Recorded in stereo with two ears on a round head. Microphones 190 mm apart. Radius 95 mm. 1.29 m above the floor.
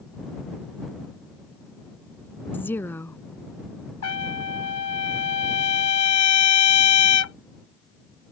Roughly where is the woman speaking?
Centre.